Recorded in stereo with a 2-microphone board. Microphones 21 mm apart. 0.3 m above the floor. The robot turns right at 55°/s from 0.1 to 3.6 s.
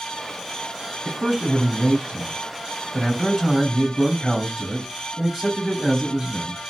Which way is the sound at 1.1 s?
145° right.